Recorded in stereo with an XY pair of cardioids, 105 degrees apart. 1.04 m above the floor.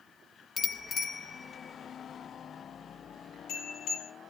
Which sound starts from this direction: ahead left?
A bicycle bell, at 0.6 s.